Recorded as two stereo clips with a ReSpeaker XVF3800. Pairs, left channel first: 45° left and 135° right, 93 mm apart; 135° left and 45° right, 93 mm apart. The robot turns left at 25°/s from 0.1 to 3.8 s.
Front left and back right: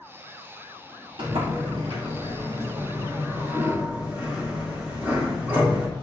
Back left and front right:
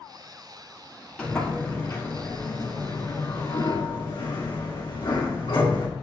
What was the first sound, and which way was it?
A sliding door, 145° right.